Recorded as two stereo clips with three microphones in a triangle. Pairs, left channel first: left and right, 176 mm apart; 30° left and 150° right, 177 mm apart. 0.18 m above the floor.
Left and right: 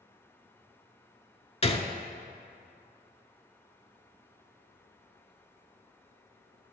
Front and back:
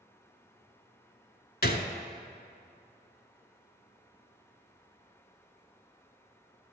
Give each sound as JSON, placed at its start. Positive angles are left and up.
{"t": 1.6, "sound": "a gunshot", "azimuth_deg": 45, "distance_m": 0.5}